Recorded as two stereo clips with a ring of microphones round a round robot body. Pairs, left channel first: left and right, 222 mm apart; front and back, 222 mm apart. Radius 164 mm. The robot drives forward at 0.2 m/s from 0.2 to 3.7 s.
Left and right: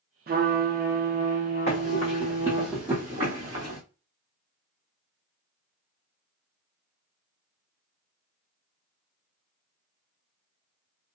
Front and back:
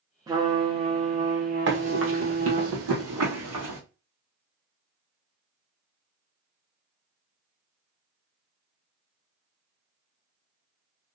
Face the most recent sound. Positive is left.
turn(degrees=-155)